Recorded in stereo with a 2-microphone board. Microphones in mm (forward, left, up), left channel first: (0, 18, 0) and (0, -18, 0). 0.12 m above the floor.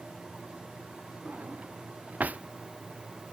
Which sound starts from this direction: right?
A drawer, at 1.2 s.